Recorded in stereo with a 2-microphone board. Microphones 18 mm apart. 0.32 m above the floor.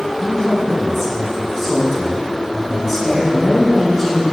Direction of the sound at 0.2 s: 25° left (ahead or behind).